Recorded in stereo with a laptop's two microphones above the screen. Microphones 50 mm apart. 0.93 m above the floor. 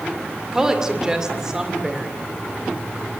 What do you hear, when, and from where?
0.5 s a woman speaking: 15° right (ahead or behind), 2.5 m